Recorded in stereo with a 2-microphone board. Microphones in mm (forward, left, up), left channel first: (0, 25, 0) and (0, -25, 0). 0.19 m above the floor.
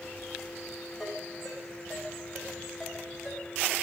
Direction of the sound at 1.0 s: 5° right (ahead or behind).